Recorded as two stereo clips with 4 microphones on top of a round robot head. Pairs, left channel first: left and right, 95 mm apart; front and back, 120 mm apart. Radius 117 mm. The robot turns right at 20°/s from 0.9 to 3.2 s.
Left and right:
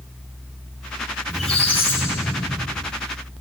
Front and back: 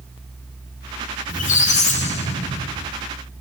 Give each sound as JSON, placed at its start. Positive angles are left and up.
{"t": 1.3, "sound": "a squeak", "azimuth_deg": 0, "distance_m": 1.1}